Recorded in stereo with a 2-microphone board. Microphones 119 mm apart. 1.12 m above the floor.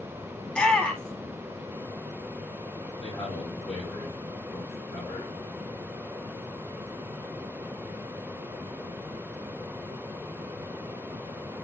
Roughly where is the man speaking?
Left.